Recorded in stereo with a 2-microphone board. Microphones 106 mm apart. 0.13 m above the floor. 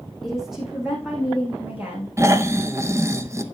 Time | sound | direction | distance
0.2 | a woman speaking | centre (ahead or behind) | 5.5 m
2.2 | snoring | 25° right (ahead or behind) | 0.7 m